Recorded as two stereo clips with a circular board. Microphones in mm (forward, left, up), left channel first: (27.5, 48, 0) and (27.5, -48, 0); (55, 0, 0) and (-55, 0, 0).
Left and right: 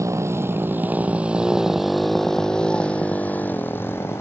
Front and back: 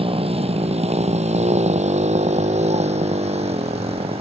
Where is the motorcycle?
145° right; by 4.2 s 155° left.